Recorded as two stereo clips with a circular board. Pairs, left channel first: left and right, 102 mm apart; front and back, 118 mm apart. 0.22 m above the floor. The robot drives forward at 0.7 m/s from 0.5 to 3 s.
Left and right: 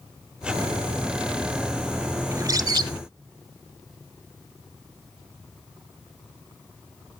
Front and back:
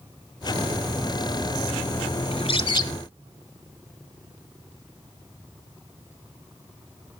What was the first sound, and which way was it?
A bird, 30° right.